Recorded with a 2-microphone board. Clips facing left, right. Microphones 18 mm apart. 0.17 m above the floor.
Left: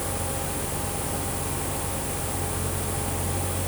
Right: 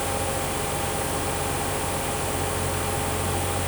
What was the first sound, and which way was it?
Only background noise.